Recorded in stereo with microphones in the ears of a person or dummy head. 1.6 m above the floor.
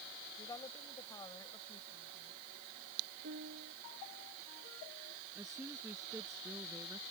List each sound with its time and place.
0.4 s a woman speaking: 20° left (ahead or behind)
3.2 s a piano: 55° right (ahead or behind)
5.3 s a woman speaking: 10° right (ahead or behind)